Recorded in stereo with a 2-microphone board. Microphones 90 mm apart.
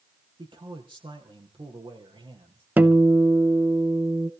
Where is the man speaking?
65° right (ahead or behind), 4.5 m.